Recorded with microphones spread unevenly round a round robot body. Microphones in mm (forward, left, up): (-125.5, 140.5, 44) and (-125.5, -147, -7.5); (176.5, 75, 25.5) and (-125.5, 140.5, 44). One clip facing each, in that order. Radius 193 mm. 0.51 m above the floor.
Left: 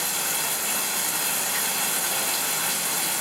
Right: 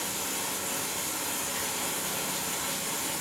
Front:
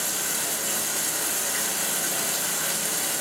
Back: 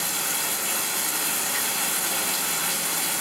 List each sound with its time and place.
0.0 s running water: 90° left, 2 m